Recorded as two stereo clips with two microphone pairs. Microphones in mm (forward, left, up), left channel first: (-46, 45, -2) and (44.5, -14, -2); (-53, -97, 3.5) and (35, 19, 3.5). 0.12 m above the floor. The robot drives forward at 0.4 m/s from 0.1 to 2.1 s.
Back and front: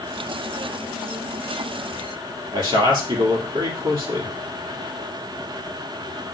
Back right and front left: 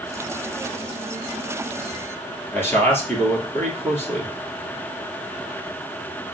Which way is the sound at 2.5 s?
55° right.